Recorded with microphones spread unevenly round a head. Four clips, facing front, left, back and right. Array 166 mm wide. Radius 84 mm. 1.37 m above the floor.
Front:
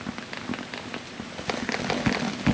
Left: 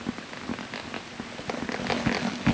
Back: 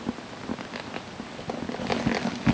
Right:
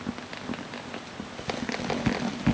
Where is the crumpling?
I don't hear crumpling.